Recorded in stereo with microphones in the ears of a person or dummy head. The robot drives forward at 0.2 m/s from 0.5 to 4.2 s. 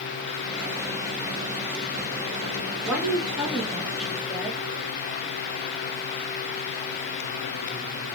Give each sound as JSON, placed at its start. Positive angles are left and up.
{"t": 2.9, "sound": "a woman speaking", "side_deg": -5, "distance_m": 0.6}